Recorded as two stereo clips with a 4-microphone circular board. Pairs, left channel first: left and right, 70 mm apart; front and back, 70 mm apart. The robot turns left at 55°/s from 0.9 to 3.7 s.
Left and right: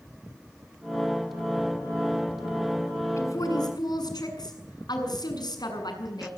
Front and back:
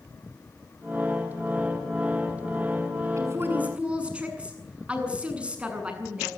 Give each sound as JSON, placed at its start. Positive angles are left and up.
{"t": 3.2, "sound": "a woman speaking", "azimuth_deg": 135, "distance_m": 7.0}